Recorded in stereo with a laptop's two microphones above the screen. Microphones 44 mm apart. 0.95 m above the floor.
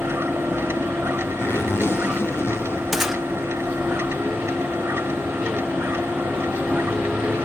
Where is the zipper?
80° left, 1.4 m.